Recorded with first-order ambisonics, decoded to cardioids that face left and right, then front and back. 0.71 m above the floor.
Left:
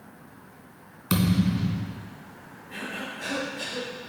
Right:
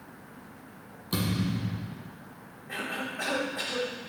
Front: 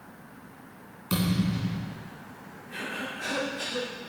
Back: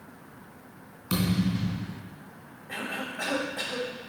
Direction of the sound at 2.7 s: 130° right.